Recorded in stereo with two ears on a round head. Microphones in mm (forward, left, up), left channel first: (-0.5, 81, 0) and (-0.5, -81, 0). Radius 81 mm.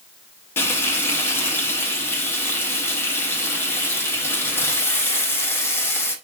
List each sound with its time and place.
0.6 s frying: 15° left (ahead or behind), 0.8 m